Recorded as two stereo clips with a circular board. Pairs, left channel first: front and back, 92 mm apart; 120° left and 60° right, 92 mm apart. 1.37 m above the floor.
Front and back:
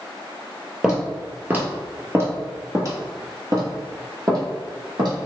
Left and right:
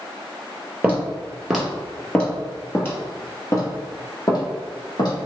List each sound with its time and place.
0.8 s footsteps: 110° right, 1.4 m; by 5.2 s 150° left, 2.5 m